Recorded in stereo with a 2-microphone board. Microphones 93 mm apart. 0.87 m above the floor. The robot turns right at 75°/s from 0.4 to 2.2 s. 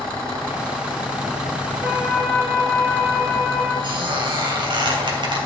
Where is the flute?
45° right, 4 m; by 3.7 s 15° right, 4 m.